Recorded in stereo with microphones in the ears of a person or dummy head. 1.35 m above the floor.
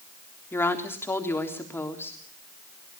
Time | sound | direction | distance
0.5 | a woman speaking | 15° left (ahead or behind) | 3.5 m